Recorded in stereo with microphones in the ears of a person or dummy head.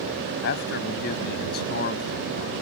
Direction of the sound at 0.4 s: 55° left (ahead or behind).